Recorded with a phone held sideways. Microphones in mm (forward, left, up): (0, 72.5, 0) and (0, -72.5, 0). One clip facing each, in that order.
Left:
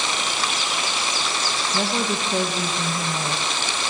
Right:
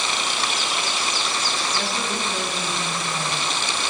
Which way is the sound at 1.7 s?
40° left (ahead or behind).